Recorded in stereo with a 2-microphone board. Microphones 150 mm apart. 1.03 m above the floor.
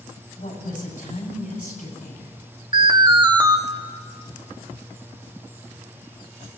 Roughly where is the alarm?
Right.